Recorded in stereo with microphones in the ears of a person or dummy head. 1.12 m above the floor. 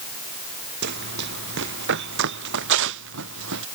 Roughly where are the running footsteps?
Right.